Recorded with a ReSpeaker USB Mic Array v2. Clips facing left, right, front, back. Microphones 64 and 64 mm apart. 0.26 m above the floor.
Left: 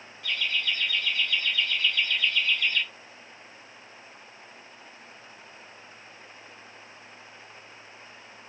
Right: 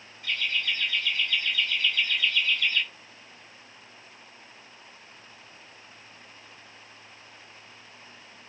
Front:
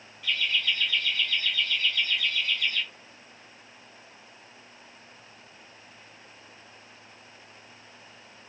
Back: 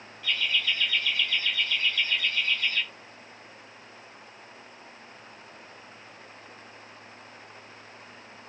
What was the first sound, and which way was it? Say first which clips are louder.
Laughter: even, even; 90° right.